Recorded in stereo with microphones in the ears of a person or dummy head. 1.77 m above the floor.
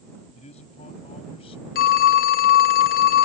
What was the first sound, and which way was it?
A man speaking, 35° left (ahead or behind).